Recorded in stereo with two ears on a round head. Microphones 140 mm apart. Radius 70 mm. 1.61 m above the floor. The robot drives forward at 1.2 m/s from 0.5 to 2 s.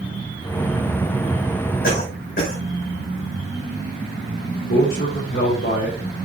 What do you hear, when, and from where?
1.8 s a cough: 60° left (ahead or behind), 5.5 m
4.7 s a man speaking: 60° left (ahead or behind), 4 m